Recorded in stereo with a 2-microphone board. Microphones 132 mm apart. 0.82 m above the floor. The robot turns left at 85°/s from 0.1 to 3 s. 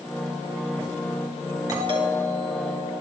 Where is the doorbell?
25° right, 3.5 m; by 2.9 s 130° right, 3.5 m.